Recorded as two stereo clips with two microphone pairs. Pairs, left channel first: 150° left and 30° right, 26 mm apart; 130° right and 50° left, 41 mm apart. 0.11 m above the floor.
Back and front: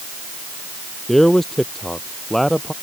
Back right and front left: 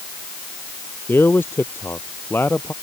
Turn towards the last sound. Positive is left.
turn(degrees=-130)